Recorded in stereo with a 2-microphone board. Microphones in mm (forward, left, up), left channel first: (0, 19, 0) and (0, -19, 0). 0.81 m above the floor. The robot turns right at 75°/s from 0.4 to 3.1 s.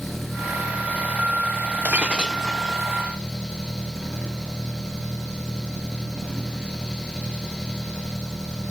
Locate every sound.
0.0 s an engine running: 175° left; by 8.7 s 20° left
1.9 s breaking glass: 50° right; by 2.8 s 20° left